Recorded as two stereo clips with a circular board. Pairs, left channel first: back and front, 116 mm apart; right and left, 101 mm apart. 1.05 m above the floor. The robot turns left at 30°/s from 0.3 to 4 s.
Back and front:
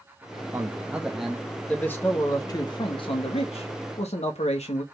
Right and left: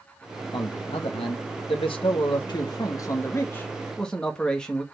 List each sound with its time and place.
0.5 s a man speaking: 65° right, 1.3 m; by 4.8 s 170° right, 1.3 m